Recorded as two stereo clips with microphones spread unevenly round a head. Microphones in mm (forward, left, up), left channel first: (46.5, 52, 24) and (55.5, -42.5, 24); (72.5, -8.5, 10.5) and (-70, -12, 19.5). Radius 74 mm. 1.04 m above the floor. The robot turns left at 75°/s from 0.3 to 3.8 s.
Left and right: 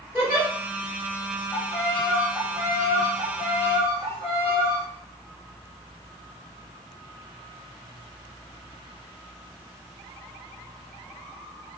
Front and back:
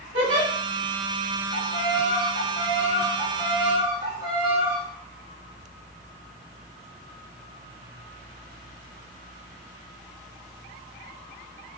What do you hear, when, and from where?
0.1 s a giggle: 175° right, 2 m; by 0.5 s 175° left, 2 m
1.5 s a violin: 50° left, 1.4 m; by 4.8 s 120° right, 1.4 m